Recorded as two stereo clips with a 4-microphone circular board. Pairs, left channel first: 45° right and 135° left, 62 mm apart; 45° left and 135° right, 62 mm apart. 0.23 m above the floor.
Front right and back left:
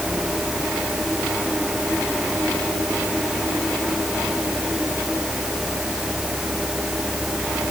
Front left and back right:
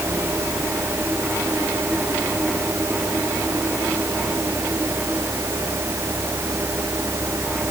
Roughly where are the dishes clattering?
I don't hear dishes clattering.